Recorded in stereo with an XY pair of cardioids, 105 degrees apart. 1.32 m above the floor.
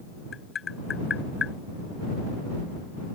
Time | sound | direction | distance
0.3 | tapping | 40° left | ?